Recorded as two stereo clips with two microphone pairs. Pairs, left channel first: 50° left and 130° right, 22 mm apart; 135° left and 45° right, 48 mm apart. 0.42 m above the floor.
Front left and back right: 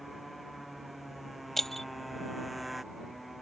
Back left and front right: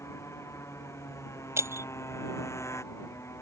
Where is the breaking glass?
35° right.